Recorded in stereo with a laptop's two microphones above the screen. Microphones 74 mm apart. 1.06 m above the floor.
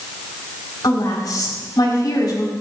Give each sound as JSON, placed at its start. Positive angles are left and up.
{"t": 0.8, "sound": "a woman speaking", "side_deg": 60, "distance_m": 5.0}